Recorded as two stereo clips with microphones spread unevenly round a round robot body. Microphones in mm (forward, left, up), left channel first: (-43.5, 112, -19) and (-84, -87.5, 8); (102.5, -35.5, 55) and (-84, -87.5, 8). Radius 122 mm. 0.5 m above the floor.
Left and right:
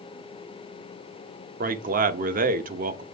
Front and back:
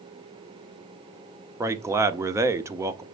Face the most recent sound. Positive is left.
turn(degrees=-125)